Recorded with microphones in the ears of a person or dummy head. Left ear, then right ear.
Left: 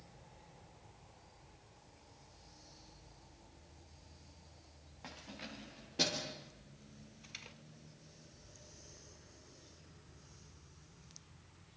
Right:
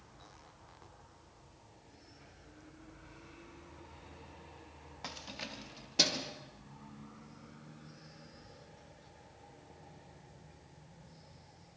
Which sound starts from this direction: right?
Keys jangling, at 5.0 s.